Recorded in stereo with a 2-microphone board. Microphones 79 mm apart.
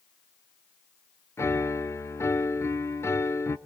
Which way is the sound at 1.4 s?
35° left (ahead or behind).